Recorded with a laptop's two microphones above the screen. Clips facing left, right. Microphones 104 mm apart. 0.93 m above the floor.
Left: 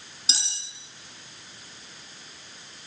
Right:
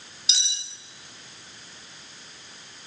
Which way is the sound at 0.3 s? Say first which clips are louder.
Left 1 dB; 35° left (ahead or behind).